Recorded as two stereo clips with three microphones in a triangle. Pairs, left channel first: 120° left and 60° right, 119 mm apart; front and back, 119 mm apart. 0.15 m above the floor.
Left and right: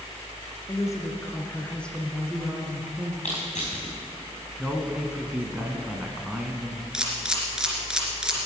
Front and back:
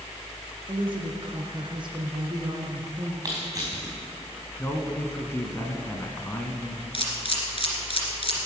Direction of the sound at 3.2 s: 120° left.